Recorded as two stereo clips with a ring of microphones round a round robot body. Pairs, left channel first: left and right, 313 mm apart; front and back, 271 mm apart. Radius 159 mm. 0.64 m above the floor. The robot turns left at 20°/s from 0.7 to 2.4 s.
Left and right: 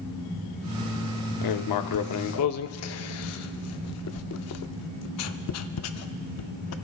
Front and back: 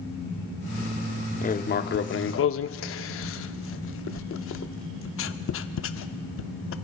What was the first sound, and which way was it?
Writing, 65° left.